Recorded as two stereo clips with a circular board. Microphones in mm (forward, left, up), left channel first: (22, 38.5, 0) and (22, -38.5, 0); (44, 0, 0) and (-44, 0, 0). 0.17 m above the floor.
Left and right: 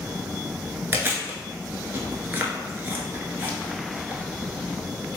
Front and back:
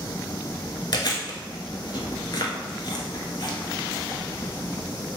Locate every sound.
0.9 s chewing: 30° right, 0.7 m